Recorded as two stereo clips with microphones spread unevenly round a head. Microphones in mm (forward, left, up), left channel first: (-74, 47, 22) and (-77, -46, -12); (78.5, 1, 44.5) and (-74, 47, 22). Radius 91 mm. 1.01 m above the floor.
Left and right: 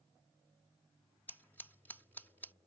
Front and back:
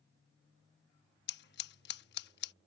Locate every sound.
1.3 s scissors: 5° left